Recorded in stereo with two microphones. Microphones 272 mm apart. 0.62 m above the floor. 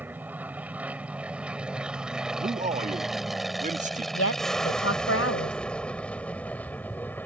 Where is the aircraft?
5° right (ahead or behind); by 7.3 s 5° left (ahead or behind).